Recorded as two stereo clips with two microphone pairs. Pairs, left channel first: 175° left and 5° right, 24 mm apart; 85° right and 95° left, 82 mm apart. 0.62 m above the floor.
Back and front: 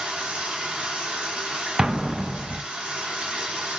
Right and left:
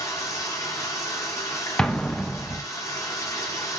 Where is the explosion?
20° right, 0.7 m.